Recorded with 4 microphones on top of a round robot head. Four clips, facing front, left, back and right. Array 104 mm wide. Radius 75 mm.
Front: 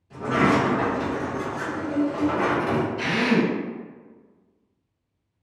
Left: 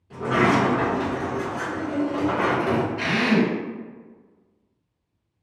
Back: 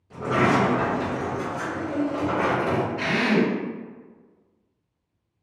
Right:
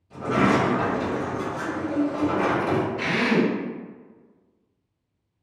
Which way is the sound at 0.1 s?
115° left.